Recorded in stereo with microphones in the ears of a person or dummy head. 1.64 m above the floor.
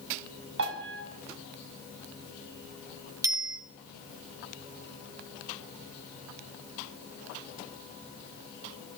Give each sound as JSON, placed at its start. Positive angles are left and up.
{"t": 0.6, "sound": "a piano", "side_deg": -65, "distance_m": 7.5}
{"t": 3.2, "sound": "a bicycle bell", "side_deg": -15, "distance_m": 2.5}